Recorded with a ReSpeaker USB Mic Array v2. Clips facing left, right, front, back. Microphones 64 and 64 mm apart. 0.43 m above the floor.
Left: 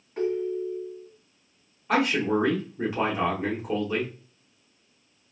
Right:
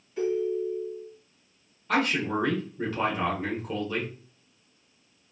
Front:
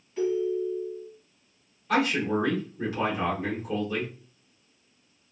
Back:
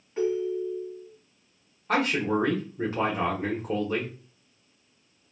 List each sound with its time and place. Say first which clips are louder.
0.2 s a ringtone: even, front 1 dB; 130° left, 1.3 m
1.9 s a man speaking: left 3 dB, even; 160° left, 1.0 m